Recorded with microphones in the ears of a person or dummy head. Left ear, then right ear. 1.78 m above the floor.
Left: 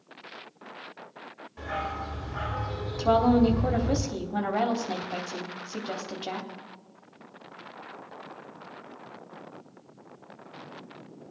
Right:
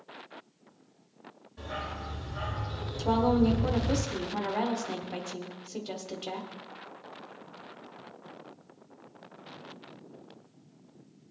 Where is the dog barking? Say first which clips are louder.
Left 5 dB; 35° left (ahead or behind), 2.5 m.